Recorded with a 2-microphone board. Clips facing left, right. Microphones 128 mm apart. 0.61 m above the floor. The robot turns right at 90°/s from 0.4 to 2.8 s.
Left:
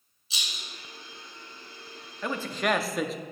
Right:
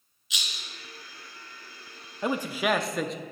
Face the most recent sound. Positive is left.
turn(degrees=0)  # may be behind; listen again after turning